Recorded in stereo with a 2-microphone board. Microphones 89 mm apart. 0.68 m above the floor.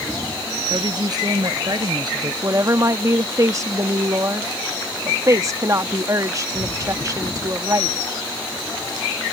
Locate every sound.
0.7 s a woman speaking: 45° right (ahead or behind); by 2.3 s 50° right (ahead or behind)
2.4 s a woman speaking: 35° right (ahead or behind)